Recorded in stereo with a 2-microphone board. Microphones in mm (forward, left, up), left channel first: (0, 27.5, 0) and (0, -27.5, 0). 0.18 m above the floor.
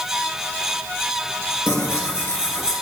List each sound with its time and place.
1.7 s tearing paper: 50° left (ahead or behind), 2 m